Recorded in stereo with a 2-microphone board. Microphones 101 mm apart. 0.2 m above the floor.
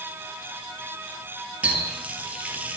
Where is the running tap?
15° right (ahead or behind), 2.5 m.